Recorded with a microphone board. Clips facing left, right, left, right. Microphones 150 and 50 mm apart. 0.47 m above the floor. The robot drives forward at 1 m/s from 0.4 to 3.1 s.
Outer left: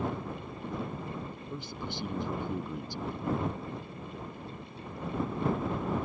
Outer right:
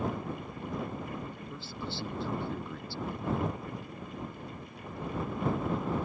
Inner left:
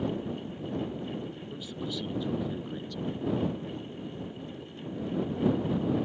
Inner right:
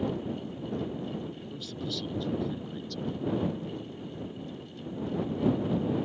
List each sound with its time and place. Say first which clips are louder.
1.5 s a man speaking: outer left 3 dB, inner left 1 dB; 15° left (ahead or behind)